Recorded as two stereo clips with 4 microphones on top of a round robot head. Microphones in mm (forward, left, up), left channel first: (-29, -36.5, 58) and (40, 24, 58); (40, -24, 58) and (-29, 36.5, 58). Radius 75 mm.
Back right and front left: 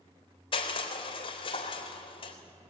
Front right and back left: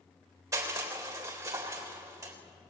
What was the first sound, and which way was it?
Crushing, 165° right.